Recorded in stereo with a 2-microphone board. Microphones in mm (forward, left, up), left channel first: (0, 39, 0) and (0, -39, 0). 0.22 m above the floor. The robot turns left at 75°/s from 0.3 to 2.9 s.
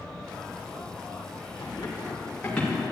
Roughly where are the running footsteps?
Left.